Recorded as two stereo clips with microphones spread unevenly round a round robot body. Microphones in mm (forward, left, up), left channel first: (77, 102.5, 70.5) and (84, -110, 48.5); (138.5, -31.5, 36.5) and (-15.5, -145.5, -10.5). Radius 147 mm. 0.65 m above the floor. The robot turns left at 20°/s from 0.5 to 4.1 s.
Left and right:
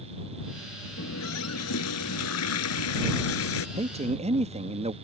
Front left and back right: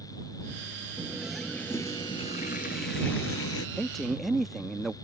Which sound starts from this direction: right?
A man speaking, at 3.8 s.